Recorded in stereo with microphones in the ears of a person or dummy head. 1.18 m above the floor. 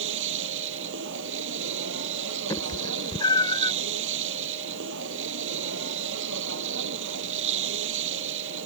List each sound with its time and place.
0.0 s a machine running: 70° right (ahead or behind)
2.5 s a cat meowing: 25° left (ahead or behind)